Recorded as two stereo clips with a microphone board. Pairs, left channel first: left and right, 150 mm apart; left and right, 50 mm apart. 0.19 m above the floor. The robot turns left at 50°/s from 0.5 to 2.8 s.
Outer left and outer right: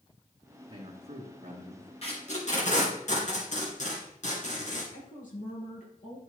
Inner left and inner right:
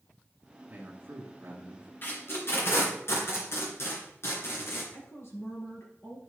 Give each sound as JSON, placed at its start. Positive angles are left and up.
{"t": 0.7, "sound": "a man speaking", "azimuth_deg": -55, "distance_m": 2.0}
{"t": 2.0, "sound": "tape being pulled", "side_deg": 45, "distance_m": 3.0}
{"t": 4.9, "sound": "a woman speaking", "side_deg": 65, "distance_m": 4.0}